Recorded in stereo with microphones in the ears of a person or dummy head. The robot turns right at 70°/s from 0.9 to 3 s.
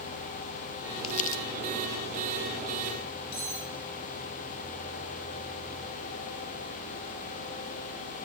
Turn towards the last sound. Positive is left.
turn(degrees=30)  # may be behind; listen again after turning